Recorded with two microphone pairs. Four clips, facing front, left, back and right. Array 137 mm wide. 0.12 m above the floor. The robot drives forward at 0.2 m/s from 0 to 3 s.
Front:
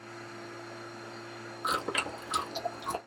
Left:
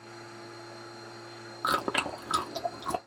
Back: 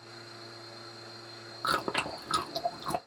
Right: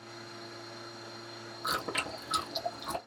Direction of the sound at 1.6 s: 115° left.